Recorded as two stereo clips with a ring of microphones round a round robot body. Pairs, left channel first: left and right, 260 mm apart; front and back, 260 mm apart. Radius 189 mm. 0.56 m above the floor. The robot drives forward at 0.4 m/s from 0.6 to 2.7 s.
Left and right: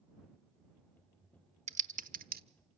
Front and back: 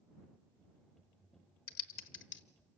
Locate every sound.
1.7 s typing on a keyboard: 25° right, 0.9 m; by 2.4 s 40° right, 0.7 m